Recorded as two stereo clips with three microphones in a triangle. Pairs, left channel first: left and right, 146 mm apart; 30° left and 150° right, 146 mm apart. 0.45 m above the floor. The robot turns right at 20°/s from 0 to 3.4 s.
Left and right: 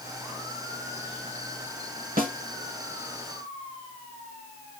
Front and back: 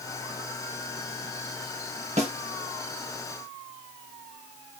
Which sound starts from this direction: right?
A snare drum, at 2.2 s.